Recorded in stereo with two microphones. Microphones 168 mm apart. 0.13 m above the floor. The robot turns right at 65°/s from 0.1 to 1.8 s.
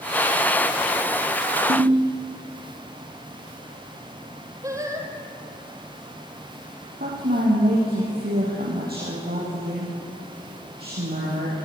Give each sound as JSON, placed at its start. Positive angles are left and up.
{"t": 1.7, "sound": "a ringtone", "side_deg": -55, "distance_m": 3.0}
{"t": 4.6, "sound": "singing", "side_deg": -20, "distance_m": 2.0}
{"t": 7.0, "sound": "a woman speaking", "side_deg": -70, "distance_m": 4.5}